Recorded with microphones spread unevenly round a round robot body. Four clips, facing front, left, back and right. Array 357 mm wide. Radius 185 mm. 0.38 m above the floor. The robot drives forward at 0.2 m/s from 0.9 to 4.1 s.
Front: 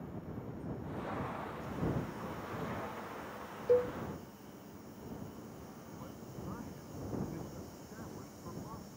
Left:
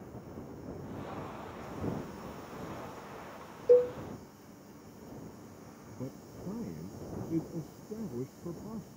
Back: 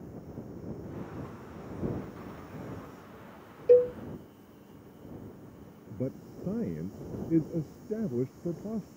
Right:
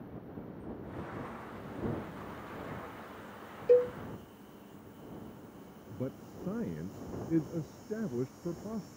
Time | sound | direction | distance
3.7 | a cowbell | 170° left | ?
5.9 | a man speaking | 170° right | ?